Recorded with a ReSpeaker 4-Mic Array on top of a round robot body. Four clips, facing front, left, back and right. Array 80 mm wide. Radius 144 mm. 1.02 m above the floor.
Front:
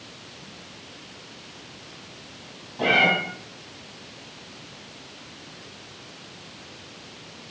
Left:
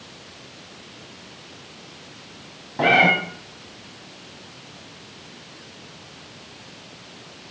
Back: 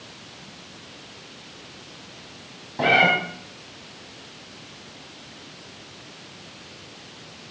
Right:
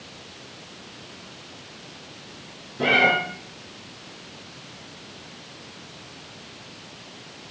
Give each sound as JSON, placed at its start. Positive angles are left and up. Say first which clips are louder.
{"t": 2.8, "sound": "a cat meowing", "louder": "left 3 dB, back 2 dB", "azimuth_deg": 115, "distance_m": 2.0}